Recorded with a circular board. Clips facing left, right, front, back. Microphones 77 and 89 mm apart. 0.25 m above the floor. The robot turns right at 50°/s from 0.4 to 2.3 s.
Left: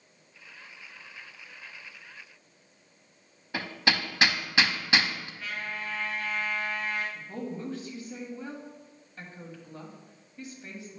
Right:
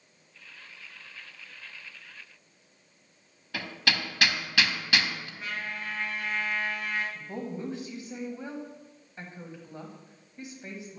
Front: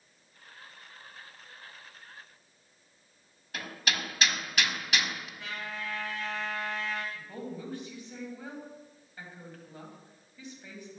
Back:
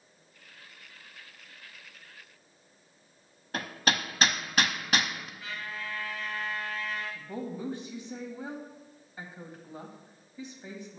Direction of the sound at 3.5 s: 150° left.